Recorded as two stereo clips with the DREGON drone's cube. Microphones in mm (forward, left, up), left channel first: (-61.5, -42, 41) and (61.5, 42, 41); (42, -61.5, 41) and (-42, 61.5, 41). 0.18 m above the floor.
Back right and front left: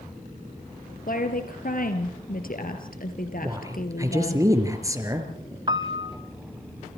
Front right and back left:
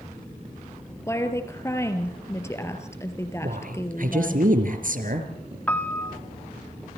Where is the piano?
15° left, 0.8 m.